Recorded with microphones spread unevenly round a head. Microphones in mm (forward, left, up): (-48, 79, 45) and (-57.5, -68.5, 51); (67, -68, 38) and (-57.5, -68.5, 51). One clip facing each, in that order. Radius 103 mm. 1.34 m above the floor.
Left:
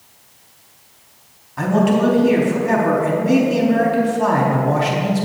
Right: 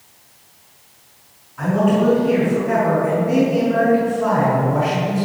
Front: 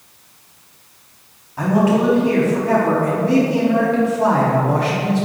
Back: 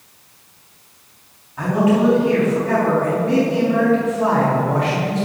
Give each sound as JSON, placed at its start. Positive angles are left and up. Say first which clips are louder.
{"t": 1.6, "sound": "a man speaking", "louder": "left 1 dB, even", "azimuth_deg": 65, "distance_m": 3.5}